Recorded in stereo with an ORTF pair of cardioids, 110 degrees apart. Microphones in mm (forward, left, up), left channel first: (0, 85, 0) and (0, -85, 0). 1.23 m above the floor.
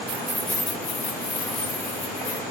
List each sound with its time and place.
0.1 s keys jangling: 35° right, 0.5 m; by 2.4 s 70° left, 2 m